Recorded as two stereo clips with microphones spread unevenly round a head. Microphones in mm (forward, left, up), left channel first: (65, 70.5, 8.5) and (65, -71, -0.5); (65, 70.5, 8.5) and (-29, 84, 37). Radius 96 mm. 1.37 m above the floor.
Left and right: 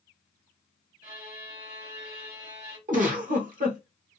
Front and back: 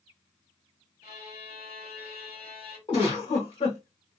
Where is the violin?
60° right, 1.7 m.